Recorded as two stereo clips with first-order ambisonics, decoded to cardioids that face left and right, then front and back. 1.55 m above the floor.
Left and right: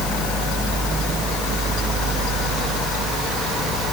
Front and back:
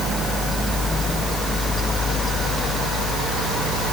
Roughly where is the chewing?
I don't hear chewing.